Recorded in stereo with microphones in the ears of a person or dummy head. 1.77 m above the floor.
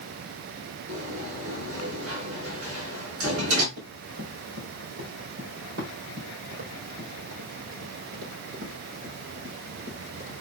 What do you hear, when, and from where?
0.9 s a sliding door: 80° right, 5.5 m
3.8 s running footsteps: 70° right (ahead or behind), 5.5 m; by 10.3 s 35° right (ahead or behind), 3.5 m